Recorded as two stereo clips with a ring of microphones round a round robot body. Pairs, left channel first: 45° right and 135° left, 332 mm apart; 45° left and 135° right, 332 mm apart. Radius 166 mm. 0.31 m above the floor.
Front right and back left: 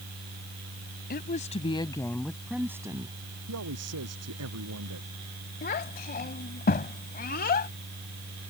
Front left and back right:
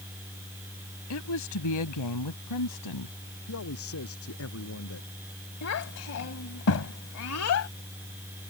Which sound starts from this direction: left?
A man speaking, at 3.5 s.